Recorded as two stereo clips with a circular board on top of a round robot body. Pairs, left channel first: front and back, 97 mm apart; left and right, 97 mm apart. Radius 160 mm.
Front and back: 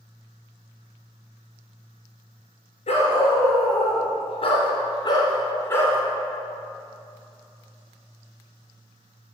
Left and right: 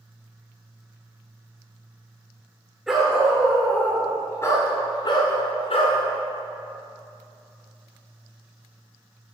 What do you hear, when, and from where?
2.9 s a dog barking: straight ahead, 2.5 m; by 6.0 s 70° left, 1.9 m